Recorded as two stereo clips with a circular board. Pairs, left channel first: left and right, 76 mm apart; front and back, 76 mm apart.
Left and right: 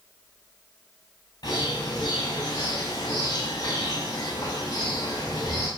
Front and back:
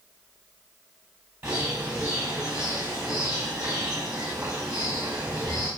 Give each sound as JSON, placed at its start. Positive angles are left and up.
{"t": 1.4, "sound": "a bird", "azimuth_deg": 130, "distance_m": 4.0}